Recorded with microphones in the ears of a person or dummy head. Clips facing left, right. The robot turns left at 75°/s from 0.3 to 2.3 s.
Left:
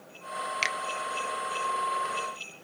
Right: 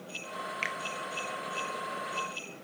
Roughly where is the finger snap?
Left.